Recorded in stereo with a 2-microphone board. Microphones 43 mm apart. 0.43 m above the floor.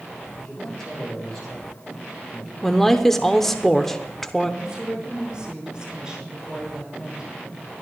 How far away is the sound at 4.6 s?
About 5.5 m.